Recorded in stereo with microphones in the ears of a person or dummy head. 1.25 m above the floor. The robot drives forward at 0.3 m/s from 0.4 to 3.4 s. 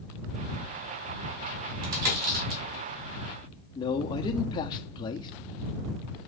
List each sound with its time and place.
1.8 s a dropped coin: 50° right (ahead or behind), 2 m
3.8 s a man speaking: 20° left (ahead or behind), 0.7 m